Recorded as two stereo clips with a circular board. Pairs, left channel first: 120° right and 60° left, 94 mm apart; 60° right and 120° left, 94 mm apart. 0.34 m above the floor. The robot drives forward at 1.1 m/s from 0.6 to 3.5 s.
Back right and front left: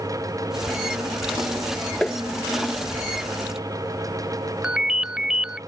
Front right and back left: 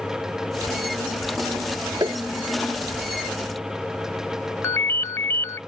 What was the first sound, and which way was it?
Tapping, 160° left.